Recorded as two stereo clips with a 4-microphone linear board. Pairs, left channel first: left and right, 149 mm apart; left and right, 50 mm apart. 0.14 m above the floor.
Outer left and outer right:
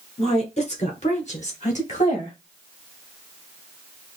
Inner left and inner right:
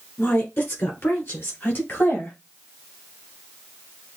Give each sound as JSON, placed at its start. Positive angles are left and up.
{"t": 0.2, "sound": "a woman speaking", "side_deg": 45, "distance_m": 1.9}